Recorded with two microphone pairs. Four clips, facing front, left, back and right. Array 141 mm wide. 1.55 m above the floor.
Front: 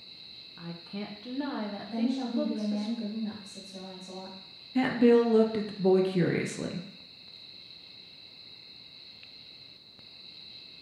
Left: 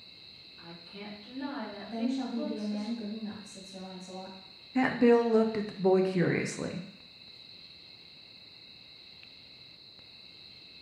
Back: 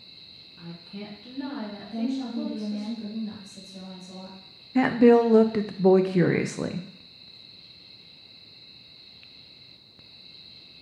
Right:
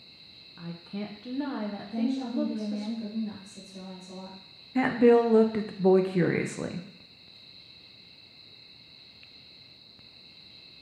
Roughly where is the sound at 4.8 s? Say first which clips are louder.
Right 3 dB, back 5 dB; behind.